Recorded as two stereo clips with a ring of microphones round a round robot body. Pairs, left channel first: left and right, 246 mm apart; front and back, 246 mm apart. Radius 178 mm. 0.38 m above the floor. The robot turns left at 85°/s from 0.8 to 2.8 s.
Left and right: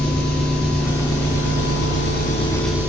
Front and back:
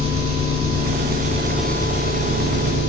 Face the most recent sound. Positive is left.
turn(degrees=-10)